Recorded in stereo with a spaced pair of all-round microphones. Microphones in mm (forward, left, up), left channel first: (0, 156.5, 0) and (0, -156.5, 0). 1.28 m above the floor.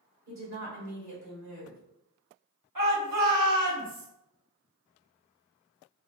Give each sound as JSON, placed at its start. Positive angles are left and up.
{"t": 0.3, "sound": "a woman speaking", "side_deg": -55, "distance_m": 2.0}
{"t": 2.8, "sound": "a shout", "side_deg": -75, "distance_m": 1.2}